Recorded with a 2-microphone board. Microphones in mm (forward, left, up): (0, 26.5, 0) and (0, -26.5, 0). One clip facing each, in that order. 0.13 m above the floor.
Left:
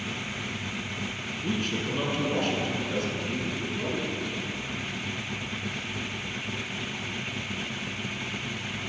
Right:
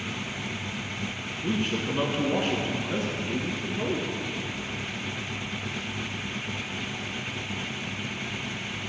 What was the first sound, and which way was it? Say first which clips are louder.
A man speaking: right 2 dB; 15° right (ahead or behind).